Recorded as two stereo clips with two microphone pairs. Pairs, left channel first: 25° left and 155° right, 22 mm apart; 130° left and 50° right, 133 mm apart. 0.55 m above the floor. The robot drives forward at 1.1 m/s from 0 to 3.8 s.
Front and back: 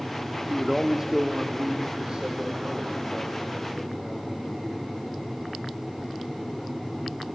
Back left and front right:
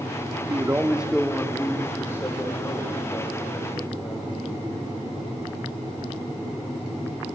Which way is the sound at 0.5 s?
70° right.